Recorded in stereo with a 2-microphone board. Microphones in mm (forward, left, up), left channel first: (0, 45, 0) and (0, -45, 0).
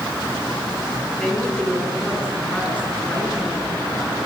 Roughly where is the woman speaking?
Centre.